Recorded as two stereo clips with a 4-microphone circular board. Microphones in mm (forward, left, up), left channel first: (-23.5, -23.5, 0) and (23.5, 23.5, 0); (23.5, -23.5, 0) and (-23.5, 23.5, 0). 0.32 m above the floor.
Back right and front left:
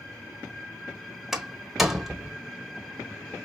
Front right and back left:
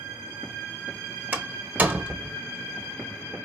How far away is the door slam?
About 1.1 m.